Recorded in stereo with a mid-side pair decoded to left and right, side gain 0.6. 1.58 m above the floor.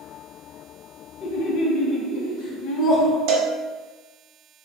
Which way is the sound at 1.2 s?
65° left.